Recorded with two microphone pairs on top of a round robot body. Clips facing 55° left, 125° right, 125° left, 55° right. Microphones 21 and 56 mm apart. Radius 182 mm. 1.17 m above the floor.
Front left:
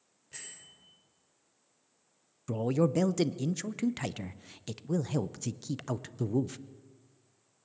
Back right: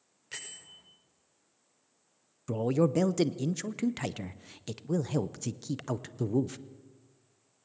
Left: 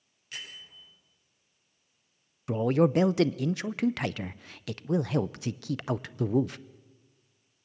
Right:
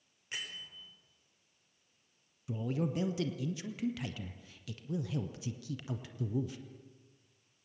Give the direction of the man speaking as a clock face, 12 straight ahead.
7 o'clock.